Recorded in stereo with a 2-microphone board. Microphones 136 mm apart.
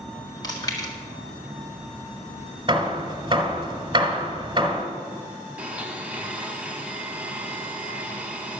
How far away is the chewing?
About 1.9 m.